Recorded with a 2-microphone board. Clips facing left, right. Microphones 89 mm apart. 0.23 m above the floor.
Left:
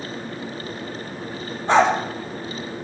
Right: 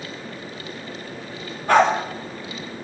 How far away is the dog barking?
About 3 m.